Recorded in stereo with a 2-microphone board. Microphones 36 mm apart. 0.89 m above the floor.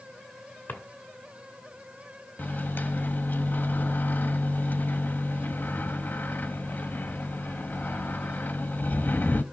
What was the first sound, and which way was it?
A drawer, 65° left (ahead or behind).